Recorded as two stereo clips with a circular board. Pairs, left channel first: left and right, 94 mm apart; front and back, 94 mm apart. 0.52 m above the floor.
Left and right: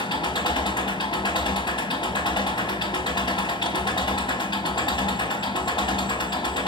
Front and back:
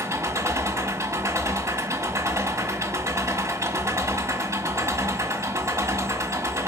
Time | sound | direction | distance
0.0 | an engine running | 120° left | 1.6 m